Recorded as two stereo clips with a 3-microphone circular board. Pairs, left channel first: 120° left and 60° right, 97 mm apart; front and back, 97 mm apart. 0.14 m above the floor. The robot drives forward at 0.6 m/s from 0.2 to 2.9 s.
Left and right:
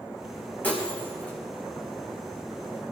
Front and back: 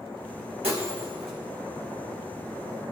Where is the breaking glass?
165° right, 4 m.